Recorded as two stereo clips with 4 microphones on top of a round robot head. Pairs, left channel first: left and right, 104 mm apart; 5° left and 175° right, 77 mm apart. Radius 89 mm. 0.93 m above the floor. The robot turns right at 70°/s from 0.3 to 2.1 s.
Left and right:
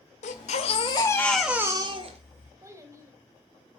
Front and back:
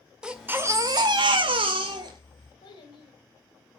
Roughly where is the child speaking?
Ahead right.